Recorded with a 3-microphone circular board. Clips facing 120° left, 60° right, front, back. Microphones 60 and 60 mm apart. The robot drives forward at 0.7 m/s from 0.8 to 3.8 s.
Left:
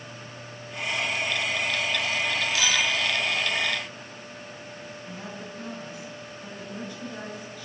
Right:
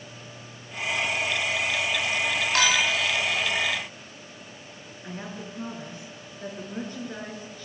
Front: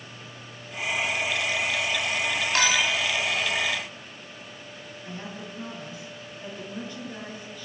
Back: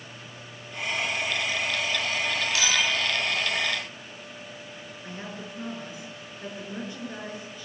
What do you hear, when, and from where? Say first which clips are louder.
2.5 s a clink: right 4 dB, front 3 dB; 35° right, 1.9 m; by 3.0 s 45° right, 1.7 m
5.0 s a woman speaking: right 4 dB, even; 110° right, 6 m